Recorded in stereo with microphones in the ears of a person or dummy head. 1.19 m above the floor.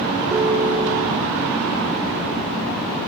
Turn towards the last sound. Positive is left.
turn(degrees=-20)  # may be behind; listen again after turning